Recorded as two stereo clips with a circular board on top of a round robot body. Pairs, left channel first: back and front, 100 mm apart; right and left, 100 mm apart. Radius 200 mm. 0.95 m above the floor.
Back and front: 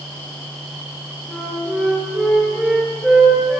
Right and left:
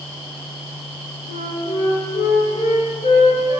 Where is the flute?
90° right, 6 m.